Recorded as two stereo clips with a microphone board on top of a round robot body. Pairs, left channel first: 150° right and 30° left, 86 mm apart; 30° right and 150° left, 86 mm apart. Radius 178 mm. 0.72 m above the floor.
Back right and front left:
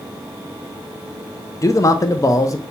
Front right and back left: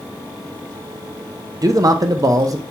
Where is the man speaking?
175° left, 0.6 m.